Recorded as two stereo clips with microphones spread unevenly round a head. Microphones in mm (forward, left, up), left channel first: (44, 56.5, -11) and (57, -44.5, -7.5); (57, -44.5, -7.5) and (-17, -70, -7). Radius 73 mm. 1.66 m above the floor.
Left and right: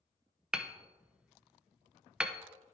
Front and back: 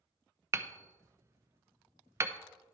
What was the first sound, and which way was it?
Hammering, 155° right.